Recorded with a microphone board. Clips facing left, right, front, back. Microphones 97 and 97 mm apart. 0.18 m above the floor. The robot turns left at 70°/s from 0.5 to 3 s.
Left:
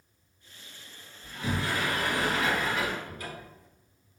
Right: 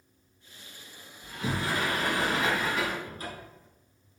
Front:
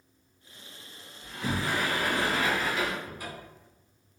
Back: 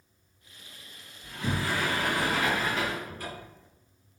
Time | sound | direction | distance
1.2 | a sliding door | 25° right | 2.0 m
3.0 | a cupboard door | 75° right | 1.4 m